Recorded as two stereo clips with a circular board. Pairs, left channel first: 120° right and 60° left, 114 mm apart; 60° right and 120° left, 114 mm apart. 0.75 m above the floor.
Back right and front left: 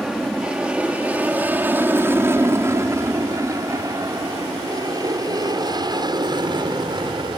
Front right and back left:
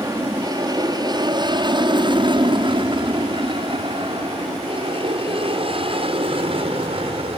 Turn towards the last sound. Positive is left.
turn(degrees=100)